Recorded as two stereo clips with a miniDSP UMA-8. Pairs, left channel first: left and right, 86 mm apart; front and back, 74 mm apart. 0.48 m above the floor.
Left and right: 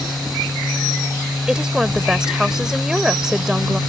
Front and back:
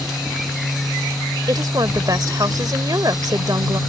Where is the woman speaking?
170° right.